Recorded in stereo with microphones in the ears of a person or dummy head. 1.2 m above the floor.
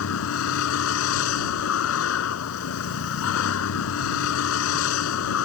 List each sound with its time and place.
0.0 s a vehicle: 80° left